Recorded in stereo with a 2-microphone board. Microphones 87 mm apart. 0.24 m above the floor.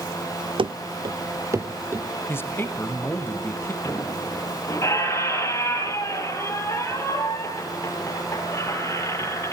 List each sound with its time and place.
0.6 s running footsteps: 70° right (ahead or behind), 0.7 m; by 2.1 s 25° right (ahead or behind), 1.8 m
2.3 s a man speaking: 25° left (ahead or behind), 1.1 m
3.8 s a squeak: 30° left (ahead or behind), 2.5 m